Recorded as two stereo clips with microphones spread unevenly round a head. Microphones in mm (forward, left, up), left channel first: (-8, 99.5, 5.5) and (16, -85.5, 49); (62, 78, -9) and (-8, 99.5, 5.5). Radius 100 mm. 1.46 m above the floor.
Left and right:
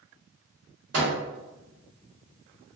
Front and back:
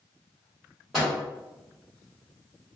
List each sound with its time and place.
0.9 s a microwave: 110° right, 1.1 m